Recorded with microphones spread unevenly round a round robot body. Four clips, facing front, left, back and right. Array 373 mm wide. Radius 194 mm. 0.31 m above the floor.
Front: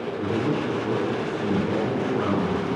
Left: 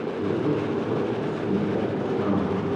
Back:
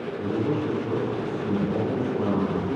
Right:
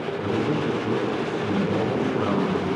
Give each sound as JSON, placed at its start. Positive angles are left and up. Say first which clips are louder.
{"t": 0.2, "sound": "a man speaking", "louder": "even, even", "azimuth_deg": -20, "distance_m": 5.0}